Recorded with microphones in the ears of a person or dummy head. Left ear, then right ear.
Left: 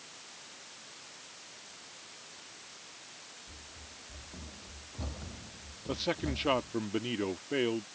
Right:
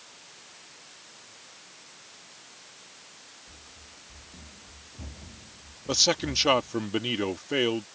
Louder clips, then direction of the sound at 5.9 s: Right 10 dB; 85° right.